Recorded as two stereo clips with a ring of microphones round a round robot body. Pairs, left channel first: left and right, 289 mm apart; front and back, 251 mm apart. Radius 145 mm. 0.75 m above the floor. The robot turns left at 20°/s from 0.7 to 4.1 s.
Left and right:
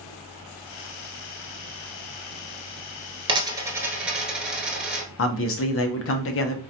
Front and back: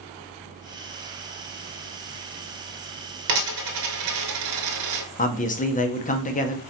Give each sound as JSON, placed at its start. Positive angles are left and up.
{"t": 3.3, "sound": "a dropped coin", "azimuth_deg": -160, "distance_m": 1.0}
{"t": 5.2, "sound": "a man speaking", "azimuth_deg": 55, "distance_m": 0.9}